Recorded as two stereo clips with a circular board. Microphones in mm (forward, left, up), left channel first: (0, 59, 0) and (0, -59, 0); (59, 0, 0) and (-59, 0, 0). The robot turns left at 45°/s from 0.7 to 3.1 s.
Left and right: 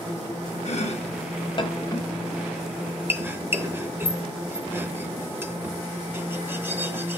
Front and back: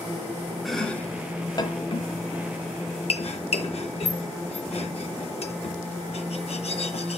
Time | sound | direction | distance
0.7 | chopping | 90° left | 0.6 m